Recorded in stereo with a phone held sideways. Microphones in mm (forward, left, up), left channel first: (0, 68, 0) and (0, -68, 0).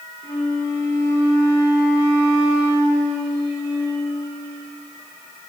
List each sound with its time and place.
0.2 s a flute: 25° left (ahead or behind), 4 m